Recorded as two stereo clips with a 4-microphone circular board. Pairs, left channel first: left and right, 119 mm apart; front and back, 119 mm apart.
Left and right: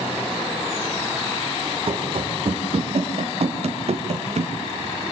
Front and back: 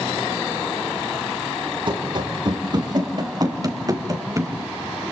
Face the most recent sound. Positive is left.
turn(degrees=-115)